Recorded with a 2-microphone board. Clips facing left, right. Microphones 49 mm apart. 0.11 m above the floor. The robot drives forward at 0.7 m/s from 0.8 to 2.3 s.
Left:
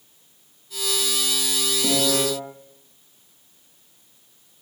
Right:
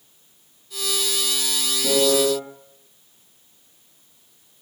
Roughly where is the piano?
Left.